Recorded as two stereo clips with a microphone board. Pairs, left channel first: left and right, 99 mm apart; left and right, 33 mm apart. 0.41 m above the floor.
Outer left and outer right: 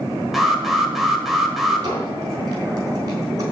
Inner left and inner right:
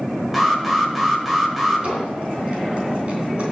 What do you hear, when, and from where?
0.3 s an alarm: centre (ahead or behind), 1.4 m
1.8 s a squeak: 35° right (ahead or behind), 3 m